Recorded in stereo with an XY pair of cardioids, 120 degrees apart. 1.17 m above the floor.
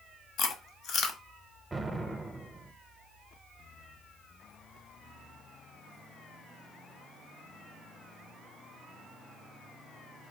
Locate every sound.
0.4 s chewing: 60° left, 0.8 m
1.7 s an explosion: 20° right, 0.6 m